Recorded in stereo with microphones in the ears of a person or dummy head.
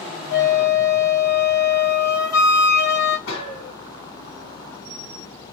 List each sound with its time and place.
0.3 s a flute: 65° left (ahead or behind), 0.6 m
3.3 s a gunshot: 70° left (ahead or behind), 1.6 m